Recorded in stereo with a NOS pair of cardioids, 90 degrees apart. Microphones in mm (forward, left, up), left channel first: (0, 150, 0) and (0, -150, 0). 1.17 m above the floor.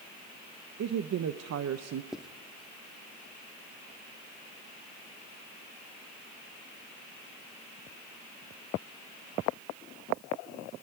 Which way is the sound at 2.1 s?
Straight ahead.